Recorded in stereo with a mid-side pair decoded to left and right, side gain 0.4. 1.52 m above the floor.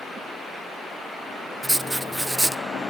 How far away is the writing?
About 0.6 m.